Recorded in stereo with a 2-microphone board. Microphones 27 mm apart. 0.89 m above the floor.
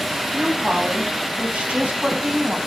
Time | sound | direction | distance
0.3 | a woman speaking | 50° right (ahead or behind) | 5.5 m